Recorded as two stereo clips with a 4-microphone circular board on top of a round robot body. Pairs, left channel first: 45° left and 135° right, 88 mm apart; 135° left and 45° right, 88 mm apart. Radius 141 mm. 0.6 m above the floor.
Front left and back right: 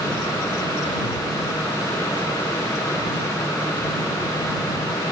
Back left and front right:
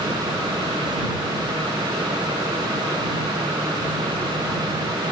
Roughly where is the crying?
I don't hear crying.